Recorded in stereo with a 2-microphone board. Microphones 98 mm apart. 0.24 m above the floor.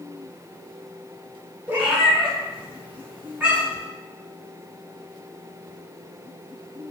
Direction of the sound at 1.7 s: 20° right (ahead or behind).